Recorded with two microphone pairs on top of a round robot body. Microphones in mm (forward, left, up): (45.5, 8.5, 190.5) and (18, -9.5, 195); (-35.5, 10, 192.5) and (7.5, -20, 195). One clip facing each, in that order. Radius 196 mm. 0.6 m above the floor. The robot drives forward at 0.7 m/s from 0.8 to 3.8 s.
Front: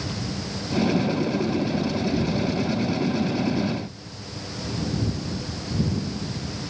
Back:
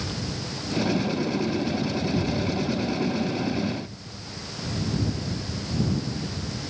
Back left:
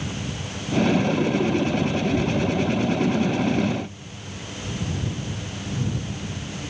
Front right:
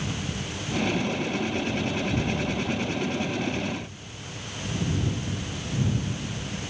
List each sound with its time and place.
Only background noise.